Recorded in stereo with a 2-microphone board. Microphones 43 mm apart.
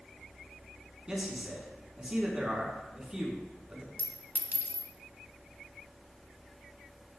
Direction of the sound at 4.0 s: 55° right (ahead or behind).